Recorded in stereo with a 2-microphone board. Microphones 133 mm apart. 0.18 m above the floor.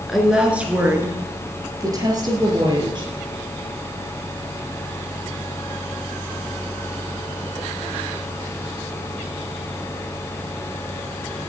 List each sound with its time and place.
0.1 s a woman speaking: centre (ahead or behind), 3 m; by 3.1 s 40° right (ahead or behind), 5 m